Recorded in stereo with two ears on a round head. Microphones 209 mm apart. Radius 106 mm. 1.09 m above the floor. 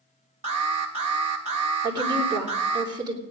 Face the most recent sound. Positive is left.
turn(degrees=-20)  # may be behind; listen again after turning